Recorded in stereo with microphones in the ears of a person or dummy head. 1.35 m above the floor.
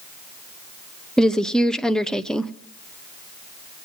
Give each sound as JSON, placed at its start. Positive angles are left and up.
{"t": 1.2, "sound": "a woman speaking", "side_deg": 0, "distance_m": 0.5}